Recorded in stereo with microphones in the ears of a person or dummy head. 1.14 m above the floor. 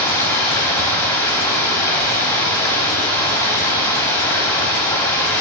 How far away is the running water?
About 1.6 m.